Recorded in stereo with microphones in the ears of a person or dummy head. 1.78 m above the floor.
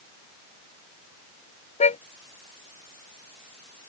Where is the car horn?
35° left (ahead or behind).